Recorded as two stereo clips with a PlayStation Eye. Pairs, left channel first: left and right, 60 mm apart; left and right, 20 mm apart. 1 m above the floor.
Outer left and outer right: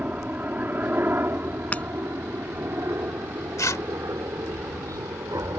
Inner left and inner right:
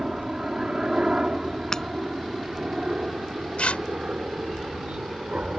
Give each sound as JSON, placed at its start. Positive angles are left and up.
{"t": 0.0, "sound": "a helicopter", "side_deg": -25}
{"t": 1.7, "sound": "breaking glass", "side_deg": 25}
{"t": 3.6, "sound": "tearing paper", "side_deg": 65}